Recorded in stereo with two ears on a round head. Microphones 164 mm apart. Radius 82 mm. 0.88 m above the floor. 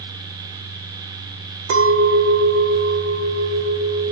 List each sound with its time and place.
1.7 s a clink: 75° right (ahead or behind), 0.5 m